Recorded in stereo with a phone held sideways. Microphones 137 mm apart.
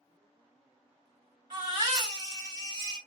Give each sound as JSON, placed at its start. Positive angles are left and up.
{"t": 1.5, "sound": "a baby crying", "side_deg": -35, "distance_m": 2.0}